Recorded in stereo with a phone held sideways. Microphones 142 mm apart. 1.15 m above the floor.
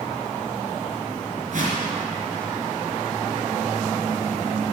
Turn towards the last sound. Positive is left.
turn(degrees=-60)  # may be behind; listen again after turning